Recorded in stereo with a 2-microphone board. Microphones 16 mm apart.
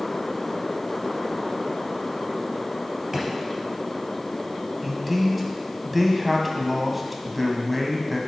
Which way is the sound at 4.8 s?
5° right (ahead or behind).